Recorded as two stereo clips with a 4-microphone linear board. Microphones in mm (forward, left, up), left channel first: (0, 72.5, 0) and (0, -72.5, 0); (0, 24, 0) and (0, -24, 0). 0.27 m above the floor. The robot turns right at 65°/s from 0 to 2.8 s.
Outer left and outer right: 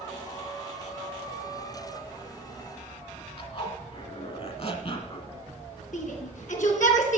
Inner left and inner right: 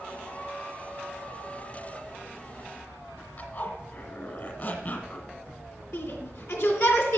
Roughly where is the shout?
Left.